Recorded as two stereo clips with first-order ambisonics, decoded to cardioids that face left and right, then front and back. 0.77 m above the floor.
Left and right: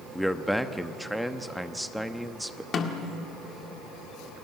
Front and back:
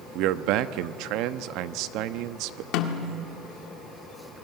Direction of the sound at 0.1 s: Straight behind.